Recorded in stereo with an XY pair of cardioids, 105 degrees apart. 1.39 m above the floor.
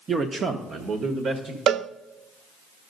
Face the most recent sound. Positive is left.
turn(degrees=-60)